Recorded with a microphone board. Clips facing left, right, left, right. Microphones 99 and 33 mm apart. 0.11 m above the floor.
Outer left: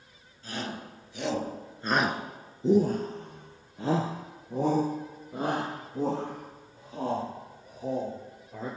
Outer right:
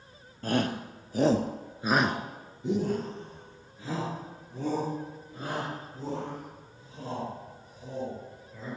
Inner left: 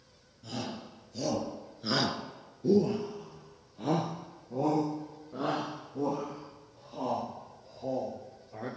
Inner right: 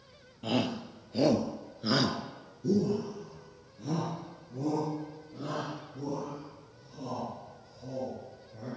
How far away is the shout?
About 2.5 m.